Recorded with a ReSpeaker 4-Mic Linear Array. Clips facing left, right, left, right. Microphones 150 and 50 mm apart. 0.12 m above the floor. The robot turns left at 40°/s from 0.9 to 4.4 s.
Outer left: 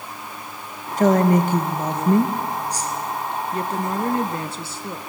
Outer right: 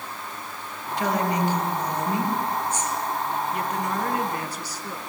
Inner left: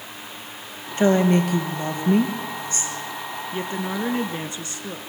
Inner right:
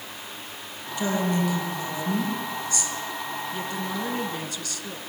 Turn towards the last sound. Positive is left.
turn(degrees=60)